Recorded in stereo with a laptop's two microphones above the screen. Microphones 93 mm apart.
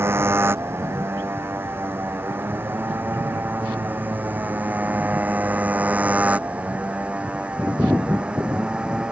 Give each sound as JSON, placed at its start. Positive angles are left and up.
{"t": 0.0, "sound": "a motorcycle", "side_deg": -25}